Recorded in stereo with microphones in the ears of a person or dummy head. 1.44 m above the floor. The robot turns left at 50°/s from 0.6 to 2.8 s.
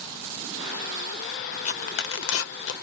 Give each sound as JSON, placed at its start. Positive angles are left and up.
{"t": 1.6, "sound": "tearing paper", "side_deg": 40, "distance_m": 0.7}